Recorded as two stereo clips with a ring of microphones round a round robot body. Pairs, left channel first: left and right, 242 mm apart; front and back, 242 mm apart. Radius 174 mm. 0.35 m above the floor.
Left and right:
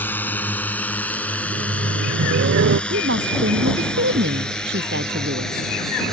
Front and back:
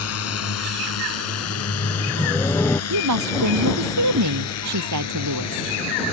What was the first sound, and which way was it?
A drone, 10° left.